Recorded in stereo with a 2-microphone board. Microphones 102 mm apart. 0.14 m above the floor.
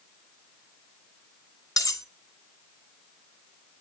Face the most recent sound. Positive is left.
turn(degrees=35)  # may be behind; listen again after turning